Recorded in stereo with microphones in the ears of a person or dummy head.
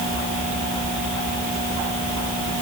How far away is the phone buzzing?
I don't hear a phone buzzing.